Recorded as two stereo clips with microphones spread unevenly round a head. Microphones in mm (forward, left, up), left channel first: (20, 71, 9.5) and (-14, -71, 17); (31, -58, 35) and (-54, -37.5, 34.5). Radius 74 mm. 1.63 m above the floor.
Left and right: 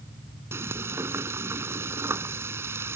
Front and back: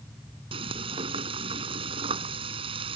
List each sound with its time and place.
0.5 s frying: straight behind